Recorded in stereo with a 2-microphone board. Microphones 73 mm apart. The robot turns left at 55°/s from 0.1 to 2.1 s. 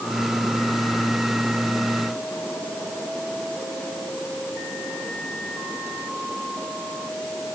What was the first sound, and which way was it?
Only background noise.